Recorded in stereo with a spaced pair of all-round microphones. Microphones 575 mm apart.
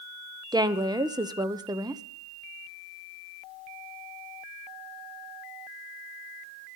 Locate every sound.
0.5 s a woman speaking: 10° right (ahead or behind), 0.5 m